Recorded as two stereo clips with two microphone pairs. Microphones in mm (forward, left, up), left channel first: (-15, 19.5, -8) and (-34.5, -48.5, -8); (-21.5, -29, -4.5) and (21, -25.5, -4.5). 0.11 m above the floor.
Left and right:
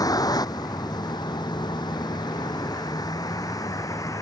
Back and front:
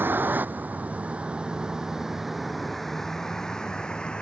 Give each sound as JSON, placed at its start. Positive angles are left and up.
{"t": 0.0, "sound": "a vehicle", "azimuth_deg": 45}